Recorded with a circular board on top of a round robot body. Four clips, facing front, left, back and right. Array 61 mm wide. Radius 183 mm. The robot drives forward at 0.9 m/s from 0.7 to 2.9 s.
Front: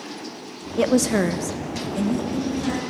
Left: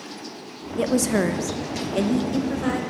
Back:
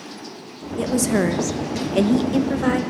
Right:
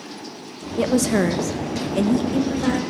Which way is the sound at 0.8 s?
5° right.